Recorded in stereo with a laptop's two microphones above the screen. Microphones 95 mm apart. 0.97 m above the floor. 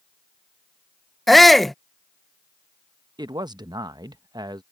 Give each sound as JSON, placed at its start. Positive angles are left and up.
{"t": 1.3, "sound": "a shout", "side_deg": 0}
{"t": 3.2, "sound": "a man speaking", "side_deg": -50}